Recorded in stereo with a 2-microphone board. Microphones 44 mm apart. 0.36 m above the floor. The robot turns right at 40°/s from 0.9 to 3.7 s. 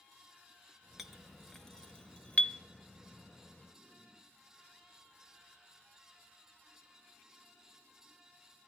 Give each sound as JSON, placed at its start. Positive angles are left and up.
{"t": 1.0, "sound": "a clink", "side_deg": -5, "distance_m": 0.7}